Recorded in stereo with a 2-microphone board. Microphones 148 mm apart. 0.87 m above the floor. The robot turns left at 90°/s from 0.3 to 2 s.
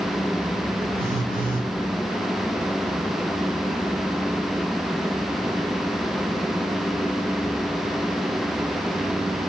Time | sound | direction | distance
0.9 | a phone buzzing | 35° right | 6.5 m